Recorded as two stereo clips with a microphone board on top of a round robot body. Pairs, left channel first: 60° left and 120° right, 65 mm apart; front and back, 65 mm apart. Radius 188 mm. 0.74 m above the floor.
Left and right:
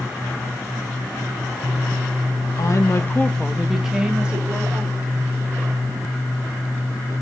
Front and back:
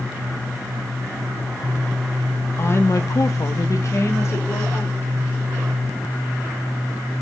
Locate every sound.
2.6 s a woman speaking: 50° left, 1.2 m; by 5.4 s 60° right, 3.5 m